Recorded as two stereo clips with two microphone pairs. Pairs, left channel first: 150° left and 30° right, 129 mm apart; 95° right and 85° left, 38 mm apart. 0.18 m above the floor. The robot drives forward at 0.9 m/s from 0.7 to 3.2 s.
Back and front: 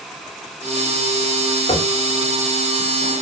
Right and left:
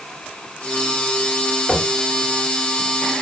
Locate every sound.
1.7 s knocking: 165° right, 2.5 m